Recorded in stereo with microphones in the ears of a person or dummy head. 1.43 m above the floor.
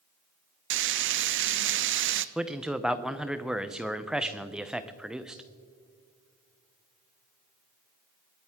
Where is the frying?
55° right (ahead or behind), 0.6 m.